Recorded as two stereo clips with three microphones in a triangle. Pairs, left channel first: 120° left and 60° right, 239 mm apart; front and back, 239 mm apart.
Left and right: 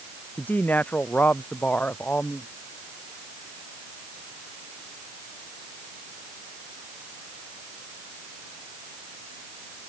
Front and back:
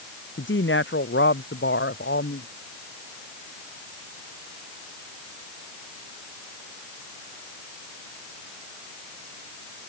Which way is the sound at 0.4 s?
35° left.